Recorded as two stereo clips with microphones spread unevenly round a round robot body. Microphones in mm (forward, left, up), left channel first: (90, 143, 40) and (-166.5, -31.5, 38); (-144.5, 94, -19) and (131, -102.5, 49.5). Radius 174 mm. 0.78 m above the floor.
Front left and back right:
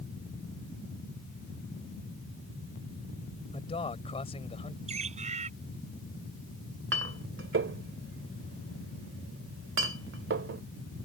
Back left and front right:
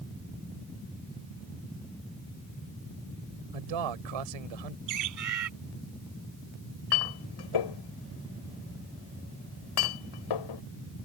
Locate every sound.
3.5 s a man speaking: 40° right
4.9 s a bird: 75° right
6.9 s a clink: 160° left